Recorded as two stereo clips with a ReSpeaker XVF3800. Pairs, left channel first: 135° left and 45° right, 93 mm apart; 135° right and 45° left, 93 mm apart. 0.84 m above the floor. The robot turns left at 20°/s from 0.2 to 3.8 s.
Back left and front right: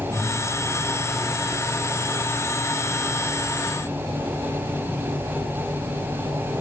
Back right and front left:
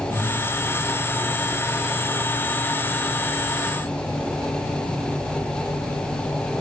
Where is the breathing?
40° left, 4.5 m.